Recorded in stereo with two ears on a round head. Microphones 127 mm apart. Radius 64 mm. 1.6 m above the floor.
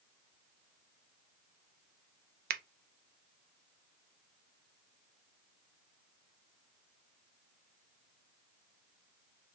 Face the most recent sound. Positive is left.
turn(degrees=-80)